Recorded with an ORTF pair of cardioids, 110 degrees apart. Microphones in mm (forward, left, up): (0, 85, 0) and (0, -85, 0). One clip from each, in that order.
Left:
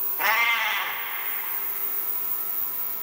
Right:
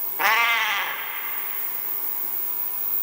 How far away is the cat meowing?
About 1.2 m.